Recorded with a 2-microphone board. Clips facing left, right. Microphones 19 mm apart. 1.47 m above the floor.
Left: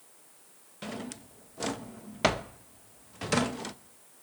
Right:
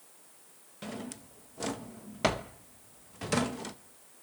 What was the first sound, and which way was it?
A drawer, 15° left (ahead or behind).